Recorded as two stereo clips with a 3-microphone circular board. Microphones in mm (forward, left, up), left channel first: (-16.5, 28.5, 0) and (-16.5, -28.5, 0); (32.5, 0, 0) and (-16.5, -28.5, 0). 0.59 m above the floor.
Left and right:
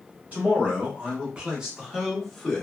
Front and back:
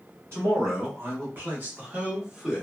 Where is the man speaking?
145° right, 1.5 m; by 2.6 s 135° left, 0.9 m.